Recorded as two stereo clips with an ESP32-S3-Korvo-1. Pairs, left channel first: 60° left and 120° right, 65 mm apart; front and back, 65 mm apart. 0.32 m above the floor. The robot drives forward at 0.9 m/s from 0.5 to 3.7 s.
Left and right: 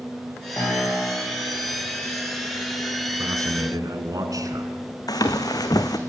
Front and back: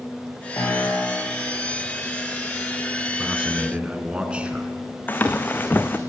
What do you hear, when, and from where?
0.6 s a piano: 20° left, 9.5 m
3.2 s a man speaking: 100° right, 3 m; by 4.7 s 110° right, 3 m
5.1 s running footsteps: 60° left, 1.8 m